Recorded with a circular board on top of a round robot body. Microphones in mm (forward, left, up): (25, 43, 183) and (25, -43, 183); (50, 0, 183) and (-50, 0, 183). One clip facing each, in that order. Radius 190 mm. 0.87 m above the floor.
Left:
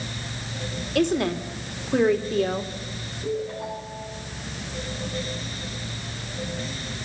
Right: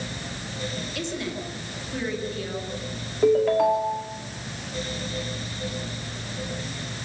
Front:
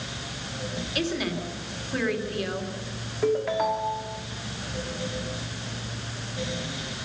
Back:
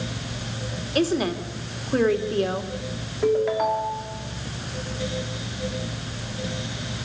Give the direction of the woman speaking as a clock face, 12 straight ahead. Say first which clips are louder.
Left 12 dB, back 7 dB; 8 o'clock.